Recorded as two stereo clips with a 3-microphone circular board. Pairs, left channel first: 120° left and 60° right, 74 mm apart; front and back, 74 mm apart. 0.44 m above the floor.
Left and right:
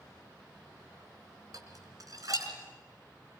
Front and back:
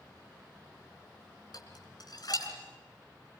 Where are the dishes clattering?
25° right, 3.5 m.